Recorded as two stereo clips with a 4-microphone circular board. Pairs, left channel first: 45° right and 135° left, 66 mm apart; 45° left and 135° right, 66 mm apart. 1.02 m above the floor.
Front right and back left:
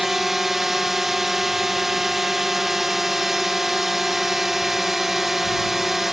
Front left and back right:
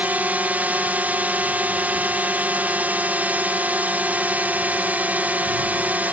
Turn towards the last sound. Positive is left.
turn(degrees=-145)